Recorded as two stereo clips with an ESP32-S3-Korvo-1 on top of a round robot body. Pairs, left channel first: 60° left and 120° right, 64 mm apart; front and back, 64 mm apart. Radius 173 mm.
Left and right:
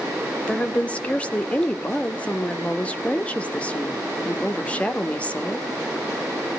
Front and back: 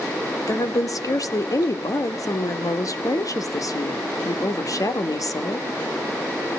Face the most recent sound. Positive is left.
turn(degrees=-10)